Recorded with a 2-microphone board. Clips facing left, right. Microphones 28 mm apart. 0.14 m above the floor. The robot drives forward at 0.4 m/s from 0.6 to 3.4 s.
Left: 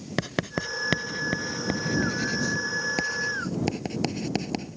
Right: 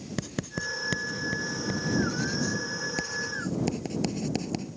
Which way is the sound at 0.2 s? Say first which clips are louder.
Left 5 dB; 35° left (ahead or behind).